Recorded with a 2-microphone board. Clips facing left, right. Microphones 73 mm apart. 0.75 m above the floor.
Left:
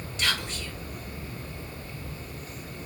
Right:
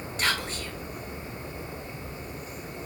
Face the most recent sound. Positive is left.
turn(degrees=-40)  # may be behind; listen again after turning